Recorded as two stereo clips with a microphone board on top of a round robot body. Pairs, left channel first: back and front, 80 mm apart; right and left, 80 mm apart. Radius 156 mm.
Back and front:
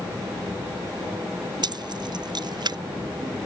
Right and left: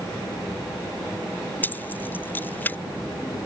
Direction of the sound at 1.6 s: 25° right.